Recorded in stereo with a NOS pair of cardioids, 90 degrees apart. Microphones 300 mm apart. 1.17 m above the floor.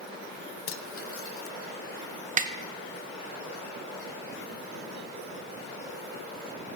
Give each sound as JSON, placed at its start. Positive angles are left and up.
{"t": 0.7, "sound": "cutlery clinking", "azimuth_deg": 50, "distance_m": 0.6}
{"t": 2.4, "sound": "a snare drum", "azimuth_deg": -30, "distance_m": 0.7}